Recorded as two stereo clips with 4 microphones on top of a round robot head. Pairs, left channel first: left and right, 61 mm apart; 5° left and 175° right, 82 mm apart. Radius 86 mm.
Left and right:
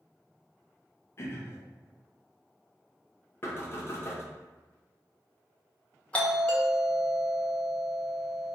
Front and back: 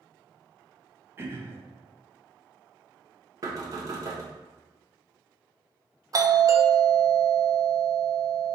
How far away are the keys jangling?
I don't hear keys jangling.